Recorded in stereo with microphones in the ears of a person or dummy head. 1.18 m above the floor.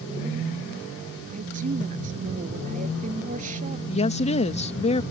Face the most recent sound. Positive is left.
turn(degrees=30)  # may be behind; listen again after turning